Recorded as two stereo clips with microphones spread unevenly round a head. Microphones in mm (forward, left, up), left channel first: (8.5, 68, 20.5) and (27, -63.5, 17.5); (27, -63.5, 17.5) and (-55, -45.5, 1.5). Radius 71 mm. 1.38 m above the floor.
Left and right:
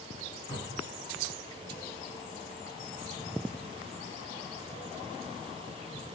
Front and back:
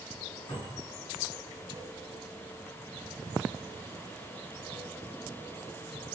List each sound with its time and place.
0.5 s a cupboard door: 25° left, 2 m